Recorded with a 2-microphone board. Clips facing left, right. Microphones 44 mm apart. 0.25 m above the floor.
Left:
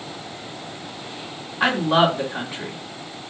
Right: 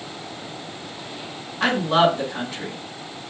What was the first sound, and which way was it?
A woman speaking, 20° left (ahead or behind).